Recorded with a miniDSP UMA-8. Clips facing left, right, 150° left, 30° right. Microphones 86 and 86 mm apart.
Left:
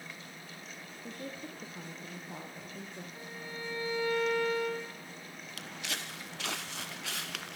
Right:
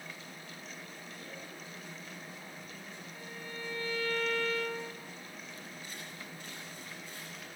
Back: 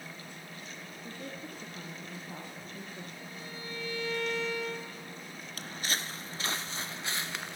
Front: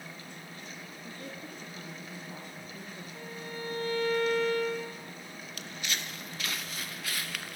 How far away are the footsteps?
About 2 m.